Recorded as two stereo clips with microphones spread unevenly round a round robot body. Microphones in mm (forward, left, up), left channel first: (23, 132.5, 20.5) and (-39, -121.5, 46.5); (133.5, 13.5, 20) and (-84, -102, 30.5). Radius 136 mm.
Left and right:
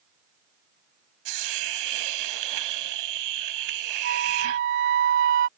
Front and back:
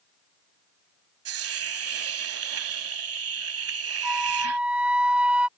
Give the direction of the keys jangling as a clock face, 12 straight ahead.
I don't hear keys jangling.